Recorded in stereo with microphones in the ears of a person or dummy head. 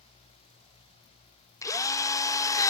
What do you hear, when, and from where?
1.6 s a drill: 15° left (ahead or behind), 1.1 m